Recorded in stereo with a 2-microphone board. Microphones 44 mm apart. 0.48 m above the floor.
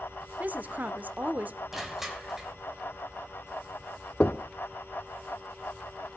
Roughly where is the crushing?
Centre.